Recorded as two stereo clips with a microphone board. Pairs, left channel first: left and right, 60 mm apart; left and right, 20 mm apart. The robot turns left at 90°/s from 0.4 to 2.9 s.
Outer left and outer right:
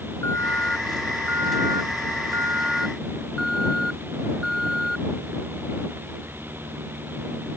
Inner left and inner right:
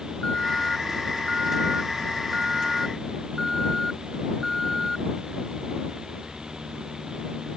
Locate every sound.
0.2 s an alarm: 45° left; by 5.0 s straight behind